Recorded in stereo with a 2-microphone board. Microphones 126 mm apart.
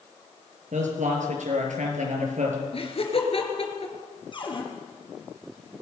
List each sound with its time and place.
0.7 s a man speaking: 75° right (ahead or behind), 6 m
2.7 s laughter: 50° left (ahead or behind), 4.5 m
4.3 s a cupboard door: 40° left (ahead or behind), 4 m